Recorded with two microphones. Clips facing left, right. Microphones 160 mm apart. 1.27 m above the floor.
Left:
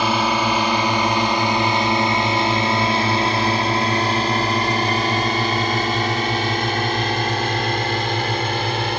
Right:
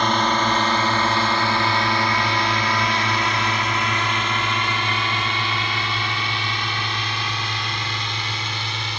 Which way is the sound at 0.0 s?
10° left (ahead or behind).